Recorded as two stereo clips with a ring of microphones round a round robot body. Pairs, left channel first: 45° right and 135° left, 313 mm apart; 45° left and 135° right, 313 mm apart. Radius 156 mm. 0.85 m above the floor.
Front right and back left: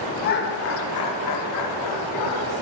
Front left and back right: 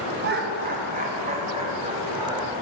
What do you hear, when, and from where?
0.2 s laughter: 95° right, 1.1 m; by 2.5 s 60° right, 2 m